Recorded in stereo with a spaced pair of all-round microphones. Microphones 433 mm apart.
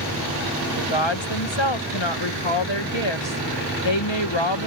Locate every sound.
0.8 s a woman speaking: 85° left